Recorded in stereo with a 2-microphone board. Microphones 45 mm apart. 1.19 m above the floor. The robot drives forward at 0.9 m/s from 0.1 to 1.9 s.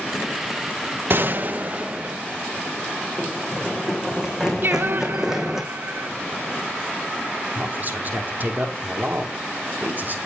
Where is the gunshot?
50° right (ahead or behind), 1.0 m; by 2.2 s 30° right (ahead or behind), 1.5 m.